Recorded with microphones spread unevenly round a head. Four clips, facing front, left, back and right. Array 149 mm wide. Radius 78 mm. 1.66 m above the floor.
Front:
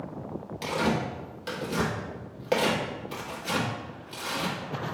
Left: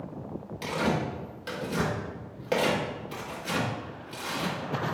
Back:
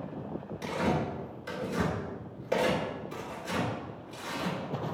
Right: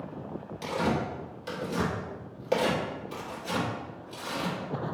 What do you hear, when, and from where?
0.6 s tearing paper: 10° right, 1.3 m